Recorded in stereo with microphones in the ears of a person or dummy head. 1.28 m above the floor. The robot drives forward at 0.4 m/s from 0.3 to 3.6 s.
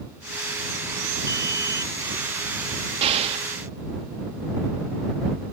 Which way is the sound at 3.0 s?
30° right (ahead or behind).